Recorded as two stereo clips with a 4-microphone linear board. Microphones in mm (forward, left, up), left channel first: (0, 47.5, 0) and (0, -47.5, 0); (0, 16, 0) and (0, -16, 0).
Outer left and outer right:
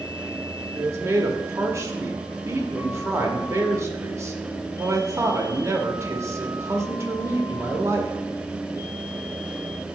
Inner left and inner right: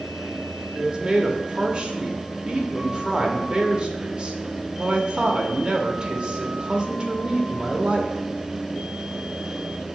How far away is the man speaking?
About 0.9 m.